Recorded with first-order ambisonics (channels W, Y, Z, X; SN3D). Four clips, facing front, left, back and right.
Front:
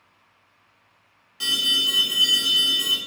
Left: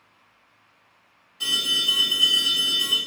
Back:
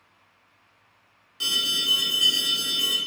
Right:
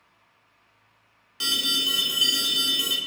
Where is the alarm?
90° right, 1.1 m.